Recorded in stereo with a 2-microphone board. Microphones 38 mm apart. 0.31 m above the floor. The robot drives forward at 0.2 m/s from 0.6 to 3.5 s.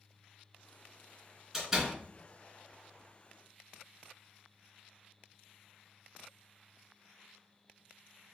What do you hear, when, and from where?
1.5 s a door slam: 15° right (ahead or behind), 2.5 m